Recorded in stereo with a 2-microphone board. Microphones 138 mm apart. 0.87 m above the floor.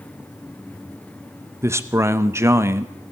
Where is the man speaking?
20° right (ahead or behind), 0.7 m.